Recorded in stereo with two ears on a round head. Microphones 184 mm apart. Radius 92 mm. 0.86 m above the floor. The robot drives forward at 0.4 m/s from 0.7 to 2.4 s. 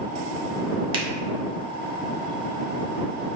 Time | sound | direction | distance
0.9 | a finger snap | 25° right (ahead or behind) | 0.5 m